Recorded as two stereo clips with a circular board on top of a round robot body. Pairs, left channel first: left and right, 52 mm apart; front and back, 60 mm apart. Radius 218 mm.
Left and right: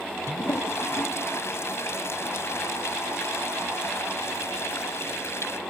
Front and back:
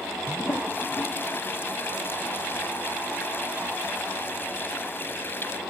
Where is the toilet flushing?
55° left.